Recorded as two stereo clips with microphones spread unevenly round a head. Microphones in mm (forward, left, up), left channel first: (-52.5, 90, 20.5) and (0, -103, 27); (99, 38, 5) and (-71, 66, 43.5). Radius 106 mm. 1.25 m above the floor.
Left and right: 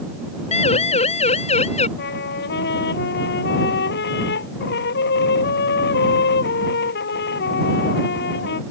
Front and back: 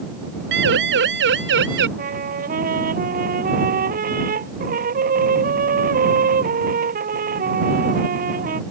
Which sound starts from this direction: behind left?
A trumpet, at 2.0 s.